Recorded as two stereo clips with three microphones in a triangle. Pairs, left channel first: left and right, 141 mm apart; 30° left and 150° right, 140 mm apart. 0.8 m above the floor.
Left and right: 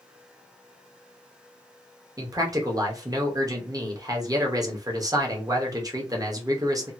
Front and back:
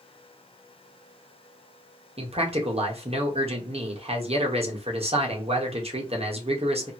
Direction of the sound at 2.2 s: 145° right.